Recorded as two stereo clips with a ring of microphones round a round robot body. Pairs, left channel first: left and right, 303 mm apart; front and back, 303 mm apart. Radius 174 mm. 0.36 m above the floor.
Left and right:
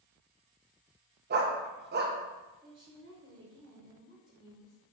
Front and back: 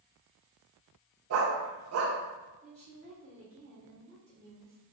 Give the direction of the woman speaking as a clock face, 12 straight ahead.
5 o'clock.